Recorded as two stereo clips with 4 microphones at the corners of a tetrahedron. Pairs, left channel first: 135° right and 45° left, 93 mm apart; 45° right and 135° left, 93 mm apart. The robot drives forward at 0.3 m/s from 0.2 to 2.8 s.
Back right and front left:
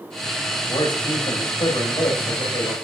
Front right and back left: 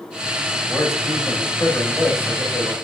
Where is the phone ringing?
No phone ringing in this recording.